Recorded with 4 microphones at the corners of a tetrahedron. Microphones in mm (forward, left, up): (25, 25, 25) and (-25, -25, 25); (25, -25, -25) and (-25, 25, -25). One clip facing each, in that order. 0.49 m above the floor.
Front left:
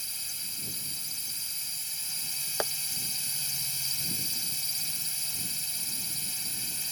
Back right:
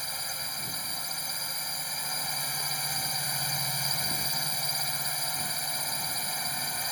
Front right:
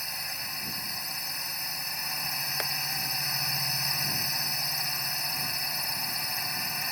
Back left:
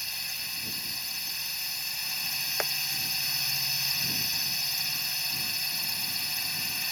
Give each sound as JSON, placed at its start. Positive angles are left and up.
{"t": 0.0, "sound": "a drone", "azimuth_deg": -105}
{"t": 2.6, "sound": "tapping", "azimuth_deg": 60}